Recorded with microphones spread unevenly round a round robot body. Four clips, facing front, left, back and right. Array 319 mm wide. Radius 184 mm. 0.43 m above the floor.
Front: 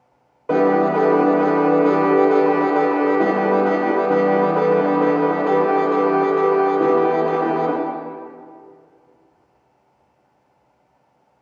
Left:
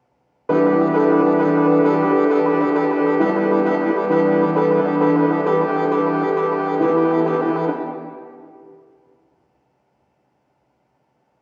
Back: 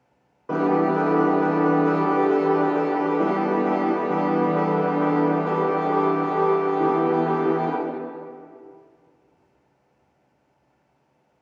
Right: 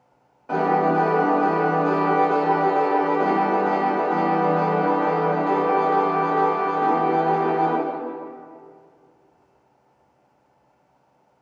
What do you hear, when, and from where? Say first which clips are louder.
0.5 s a piano: left 4 dB, front 4 dB; 70° left, 0.8 m